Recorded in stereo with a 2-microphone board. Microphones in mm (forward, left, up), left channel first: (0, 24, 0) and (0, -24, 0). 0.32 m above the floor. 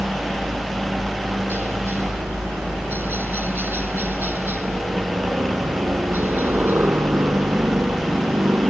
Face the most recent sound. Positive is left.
turn(degrees=-45)  # may be behind; listen again after turning